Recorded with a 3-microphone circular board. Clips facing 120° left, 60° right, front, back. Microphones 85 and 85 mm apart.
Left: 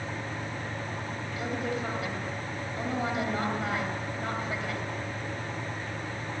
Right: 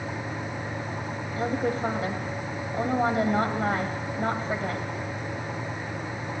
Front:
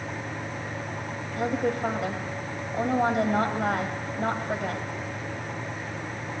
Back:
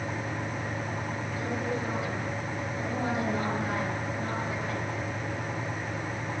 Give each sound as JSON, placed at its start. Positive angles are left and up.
{"t": 1.4, "sound": "a woman speaking", "azimuth_deg": -10, "distance_m": 3.5}